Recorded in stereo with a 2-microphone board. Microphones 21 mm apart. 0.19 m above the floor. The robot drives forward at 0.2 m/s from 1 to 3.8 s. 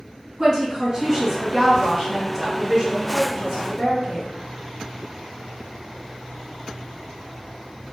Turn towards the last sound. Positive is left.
turn(degrees=-25)  # may be behind; listen again after turning